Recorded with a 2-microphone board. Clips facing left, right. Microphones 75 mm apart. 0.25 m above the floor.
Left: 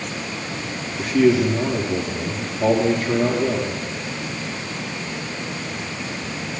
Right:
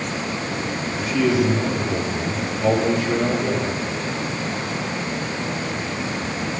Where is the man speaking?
35° left (ahead or behind), 6 m.